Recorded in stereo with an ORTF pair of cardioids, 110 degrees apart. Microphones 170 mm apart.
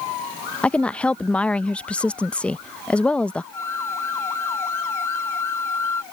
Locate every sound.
0.6 s a woman speaking: 5° left
3.5 s a flute: 15° left